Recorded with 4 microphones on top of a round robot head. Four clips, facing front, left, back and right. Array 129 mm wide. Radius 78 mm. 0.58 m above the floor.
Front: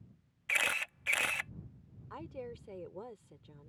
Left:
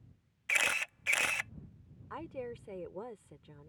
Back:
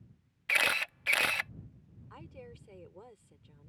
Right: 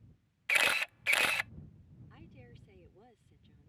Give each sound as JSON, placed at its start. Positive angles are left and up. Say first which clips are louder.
{"t": 0.5, "sound": "a camera shutter", "louder": "right 3 dB, back 4 dB", "azimuth_deg": -140}
{"t": 2.1, "sound": "a woman speaking", "louder": "left 18 dB, front 6 dB", "azimuth_deg": 65}